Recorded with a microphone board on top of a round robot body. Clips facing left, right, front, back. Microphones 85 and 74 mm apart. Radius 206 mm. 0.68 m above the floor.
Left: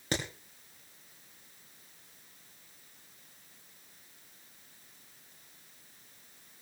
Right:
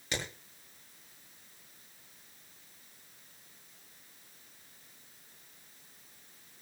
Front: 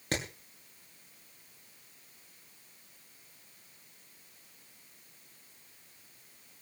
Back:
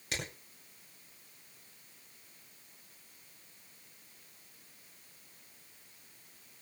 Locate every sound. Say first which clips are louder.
0.1 s hammering: left 3 dB, front 5 dB; 45° left, 6.5 m